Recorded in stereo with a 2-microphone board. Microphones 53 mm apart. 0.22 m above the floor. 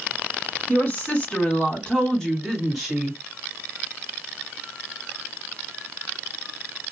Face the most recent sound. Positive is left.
turn(degrees=-15)  # may be behind; listen again after turning